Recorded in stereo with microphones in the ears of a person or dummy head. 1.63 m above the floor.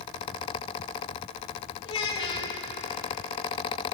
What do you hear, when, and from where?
1.9 s a child speaking: 35° left (ahead or behind), 2 m